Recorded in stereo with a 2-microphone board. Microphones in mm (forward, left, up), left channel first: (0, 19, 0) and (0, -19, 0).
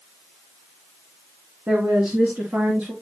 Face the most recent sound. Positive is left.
turn(degrees=-65)  # may be behind; listen again after turning